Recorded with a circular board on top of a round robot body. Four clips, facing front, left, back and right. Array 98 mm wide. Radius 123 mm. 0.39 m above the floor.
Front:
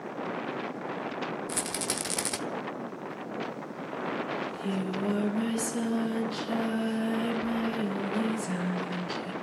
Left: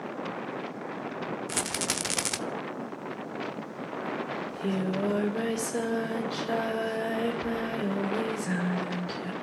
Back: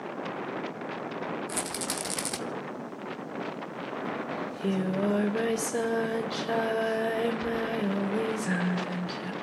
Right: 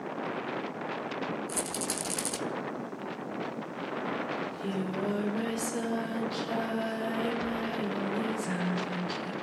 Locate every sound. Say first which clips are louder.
1.5 s a rattle: left 2 dB, even; 85° left, 0.9 m
4.4 s singing: left 3 dB, back 2 dB; 155° left, 3 m